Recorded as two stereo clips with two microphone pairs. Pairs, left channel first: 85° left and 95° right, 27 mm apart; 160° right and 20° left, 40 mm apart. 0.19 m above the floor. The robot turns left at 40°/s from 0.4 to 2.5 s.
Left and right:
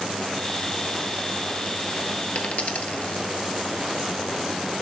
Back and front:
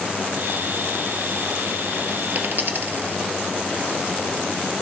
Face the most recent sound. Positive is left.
turn(degrees=60)